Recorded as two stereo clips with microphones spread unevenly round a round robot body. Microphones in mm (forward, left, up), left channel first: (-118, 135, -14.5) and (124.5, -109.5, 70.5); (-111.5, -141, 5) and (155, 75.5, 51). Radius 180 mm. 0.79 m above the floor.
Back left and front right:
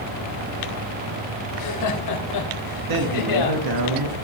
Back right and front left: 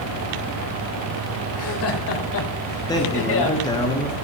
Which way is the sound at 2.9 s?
70° right.